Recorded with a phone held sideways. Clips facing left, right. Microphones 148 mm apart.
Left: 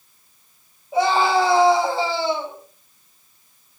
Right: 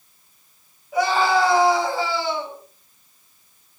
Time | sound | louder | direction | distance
0.9 | a scream | left 1 dB | 30° left (ahead or behind) | 6.5 m